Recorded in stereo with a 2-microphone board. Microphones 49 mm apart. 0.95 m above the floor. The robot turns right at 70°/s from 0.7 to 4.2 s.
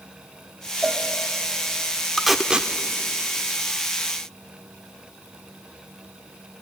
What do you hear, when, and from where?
0.8 s a cowbell: 5° right (ahead or behind), 1.8 m; by 1.1 s 10° left (ahead or behind), 1.8 m
2.2 s tape being pulled: 5° left (ahead or behind), 0.8 m; by 2.7 s 25° right (ahead or behind), 0.8 m